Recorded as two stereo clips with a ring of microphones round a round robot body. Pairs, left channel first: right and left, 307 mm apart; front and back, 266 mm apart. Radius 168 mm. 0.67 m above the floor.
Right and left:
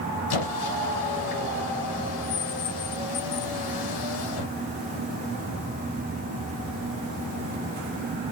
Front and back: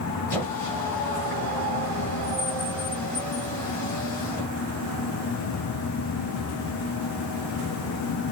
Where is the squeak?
80° right, 1.5 m.